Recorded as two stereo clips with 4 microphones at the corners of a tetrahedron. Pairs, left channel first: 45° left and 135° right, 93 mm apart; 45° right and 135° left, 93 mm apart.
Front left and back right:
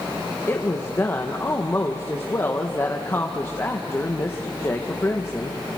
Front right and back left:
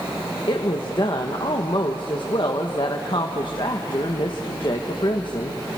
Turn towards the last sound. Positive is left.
turn(degrees=-15)